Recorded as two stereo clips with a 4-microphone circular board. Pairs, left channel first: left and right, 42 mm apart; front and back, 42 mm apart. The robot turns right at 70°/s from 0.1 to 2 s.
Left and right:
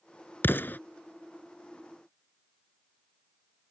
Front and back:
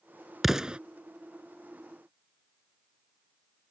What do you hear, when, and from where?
0.4 s an explosion: 95° left; by 0.8 s 120° left